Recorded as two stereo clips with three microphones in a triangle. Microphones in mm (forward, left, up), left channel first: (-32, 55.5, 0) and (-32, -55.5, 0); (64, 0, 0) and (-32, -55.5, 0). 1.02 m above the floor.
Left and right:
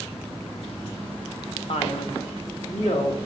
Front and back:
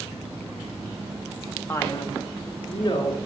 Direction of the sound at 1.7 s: 95° left.